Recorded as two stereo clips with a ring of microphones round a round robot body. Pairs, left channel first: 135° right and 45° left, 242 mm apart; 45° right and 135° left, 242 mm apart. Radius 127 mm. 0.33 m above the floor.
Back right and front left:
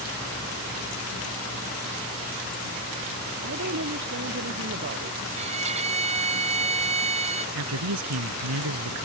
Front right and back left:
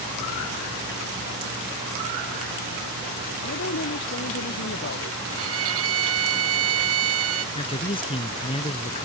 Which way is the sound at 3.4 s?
Straight ahead.